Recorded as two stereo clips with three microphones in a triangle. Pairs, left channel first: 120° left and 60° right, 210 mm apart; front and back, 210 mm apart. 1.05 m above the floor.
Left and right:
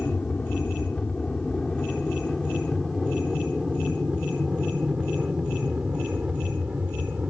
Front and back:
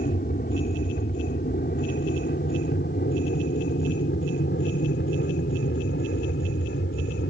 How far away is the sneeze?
I don't hear a sneeze.